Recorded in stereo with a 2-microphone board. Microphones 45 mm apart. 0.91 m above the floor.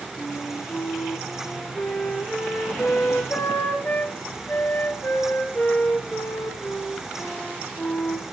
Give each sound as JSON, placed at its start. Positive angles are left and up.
{"t": 0.2, "sound": "a flute", "side_deg": 40, "distance_m": 7.0}